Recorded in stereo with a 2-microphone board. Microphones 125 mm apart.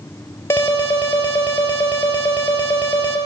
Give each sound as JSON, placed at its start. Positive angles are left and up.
{"t": 0.5, "sound": "an alarm", "side_deg": 20, "distance_m": 3.5}